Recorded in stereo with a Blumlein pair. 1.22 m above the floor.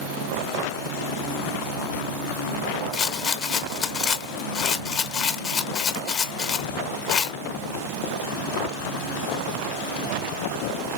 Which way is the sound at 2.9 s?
25° left.